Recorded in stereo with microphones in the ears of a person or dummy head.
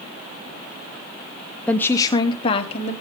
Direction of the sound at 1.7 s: 10° left (ahead or behind).